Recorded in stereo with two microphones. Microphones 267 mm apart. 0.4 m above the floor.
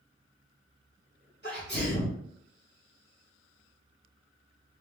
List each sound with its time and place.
1.4 s a sneeze: 40° left (ahead or behind), 1.7 m